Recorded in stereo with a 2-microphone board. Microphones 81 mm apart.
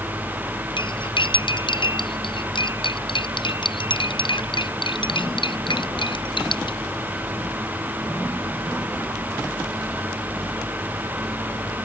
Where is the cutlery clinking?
80° left.